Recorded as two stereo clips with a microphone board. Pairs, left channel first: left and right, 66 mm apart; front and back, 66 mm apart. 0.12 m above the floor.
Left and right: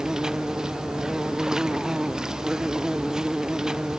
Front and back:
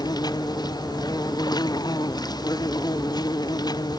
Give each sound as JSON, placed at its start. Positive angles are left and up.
{"t": 0.0, "sound": "an insect", "azimuth_deg": -10}